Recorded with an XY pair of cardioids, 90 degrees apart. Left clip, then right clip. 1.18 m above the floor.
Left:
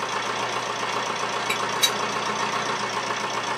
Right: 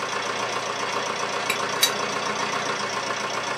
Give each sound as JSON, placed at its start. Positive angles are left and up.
{"t": 0.0, "sound": "a machine running", "azimuth_deg": -10, "distance_m": 1.0}
{"t": 1.5, "sound": "a gunshot", "azimuth_deg": -65, "distance_m": 1.4}